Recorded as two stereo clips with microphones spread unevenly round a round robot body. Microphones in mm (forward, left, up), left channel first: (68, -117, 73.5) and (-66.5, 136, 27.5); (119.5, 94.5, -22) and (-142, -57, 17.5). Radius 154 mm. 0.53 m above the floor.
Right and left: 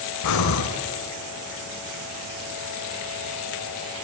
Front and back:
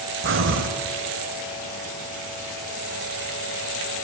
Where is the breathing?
95° right, 1.3 m.